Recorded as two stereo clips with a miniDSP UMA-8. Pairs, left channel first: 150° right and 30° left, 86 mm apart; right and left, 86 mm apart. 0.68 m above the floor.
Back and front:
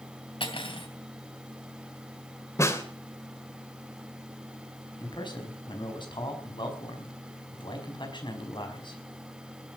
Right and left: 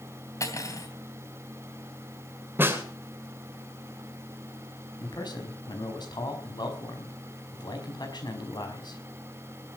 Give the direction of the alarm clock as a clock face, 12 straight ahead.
No alarm clock in this recording.